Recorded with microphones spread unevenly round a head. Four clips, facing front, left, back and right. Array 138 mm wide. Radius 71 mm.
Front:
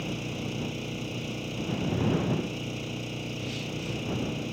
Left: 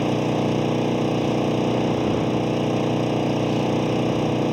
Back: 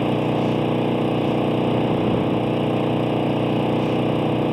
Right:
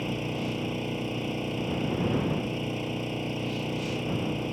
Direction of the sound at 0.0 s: 150° left.